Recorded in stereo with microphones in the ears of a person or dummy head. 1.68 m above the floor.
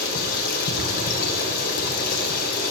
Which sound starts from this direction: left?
Running water, at 0.0 s.